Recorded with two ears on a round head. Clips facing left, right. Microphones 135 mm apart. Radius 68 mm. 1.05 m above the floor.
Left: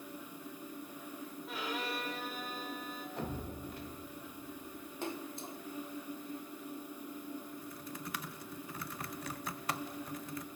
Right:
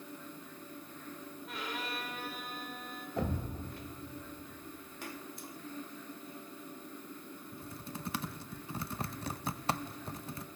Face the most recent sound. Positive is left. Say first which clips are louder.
# even
turn(degrees=-25)  # may be behind; listen again after turning